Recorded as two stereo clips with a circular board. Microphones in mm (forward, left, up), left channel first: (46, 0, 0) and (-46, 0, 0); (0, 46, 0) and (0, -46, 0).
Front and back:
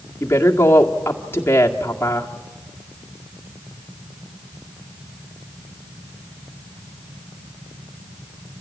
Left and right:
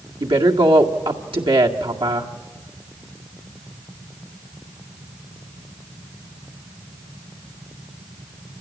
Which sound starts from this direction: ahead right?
A woman speaking, at 0.2 s.